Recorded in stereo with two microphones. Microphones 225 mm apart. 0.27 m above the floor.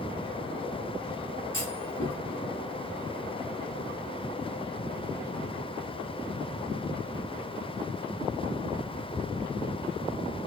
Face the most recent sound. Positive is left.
turn(degrees=60)  # may be behind; listen again after turning